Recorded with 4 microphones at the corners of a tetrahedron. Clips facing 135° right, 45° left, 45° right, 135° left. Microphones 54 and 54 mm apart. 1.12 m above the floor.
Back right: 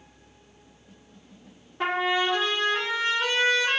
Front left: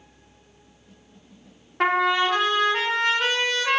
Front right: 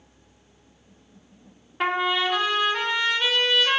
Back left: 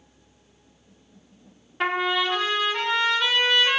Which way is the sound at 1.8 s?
40° left.